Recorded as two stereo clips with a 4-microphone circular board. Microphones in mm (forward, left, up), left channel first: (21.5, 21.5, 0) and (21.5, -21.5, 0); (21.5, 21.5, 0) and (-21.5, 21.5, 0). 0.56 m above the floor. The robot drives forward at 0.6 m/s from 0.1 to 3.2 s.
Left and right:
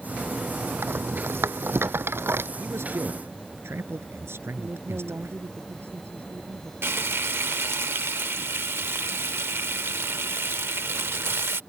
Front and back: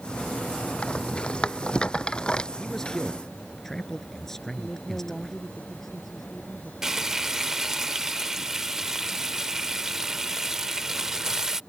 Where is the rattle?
65° right; by 2.5 s 70° right.